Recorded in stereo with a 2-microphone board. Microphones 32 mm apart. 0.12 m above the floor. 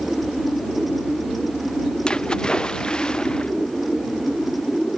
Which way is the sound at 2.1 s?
25° left (ahead or behind).